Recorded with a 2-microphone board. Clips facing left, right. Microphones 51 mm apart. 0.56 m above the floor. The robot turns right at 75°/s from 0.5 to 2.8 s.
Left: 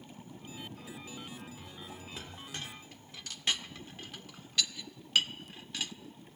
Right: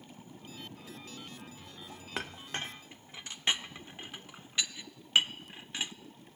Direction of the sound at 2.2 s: 65° right (ahead or behind).